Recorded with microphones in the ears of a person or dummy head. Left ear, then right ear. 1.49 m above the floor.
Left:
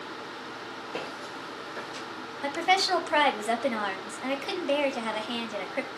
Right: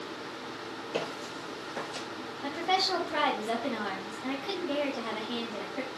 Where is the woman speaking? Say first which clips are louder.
Left 4 dB; 55° left (ahead or behind), 0.5 m.